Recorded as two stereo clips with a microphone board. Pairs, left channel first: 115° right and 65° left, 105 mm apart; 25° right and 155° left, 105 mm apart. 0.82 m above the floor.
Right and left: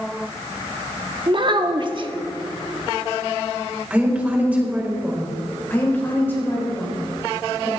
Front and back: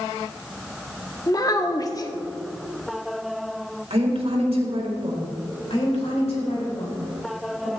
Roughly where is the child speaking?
Ahead left.